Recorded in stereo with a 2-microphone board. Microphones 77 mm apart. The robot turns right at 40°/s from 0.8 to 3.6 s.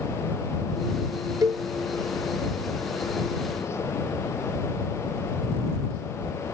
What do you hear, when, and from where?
1.4 s a cowbell: 55° right (ahead or behind)